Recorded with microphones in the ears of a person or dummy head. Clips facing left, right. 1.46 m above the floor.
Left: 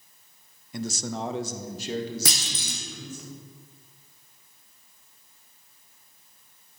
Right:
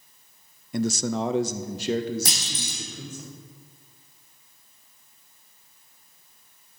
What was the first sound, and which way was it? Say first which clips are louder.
A man speaking: right 7 dB; 45° right (ahead or behind).